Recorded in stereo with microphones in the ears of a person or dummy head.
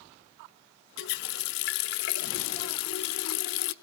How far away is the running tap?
About 0.8 m.